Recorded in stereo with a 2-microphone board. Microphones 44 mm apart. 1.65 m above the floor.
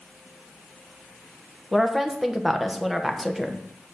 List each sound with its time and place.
1.7 s a woman speaking: centre (ahead or behind), 1.1 m